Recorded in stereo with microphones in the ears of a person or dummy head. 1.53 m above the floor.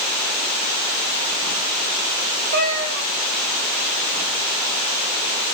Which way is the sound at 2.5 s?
50° right (ahead or behind).